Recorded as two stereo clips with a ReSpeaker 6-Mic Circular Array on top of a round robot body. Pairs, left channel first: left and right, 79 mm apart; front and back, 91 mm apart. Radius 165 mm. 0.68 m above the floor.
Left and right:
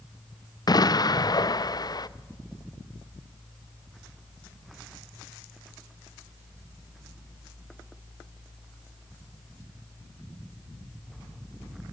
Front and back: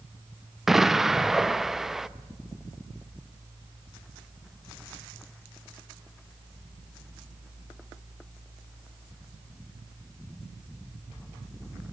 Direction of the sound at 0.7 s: 95° left.